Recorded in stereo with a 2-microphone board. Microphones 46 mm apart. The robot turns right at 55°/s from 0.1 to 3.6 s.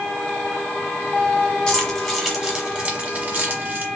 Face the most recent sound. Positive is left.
turn(degrees=-40)  # may be behind; listen again after turning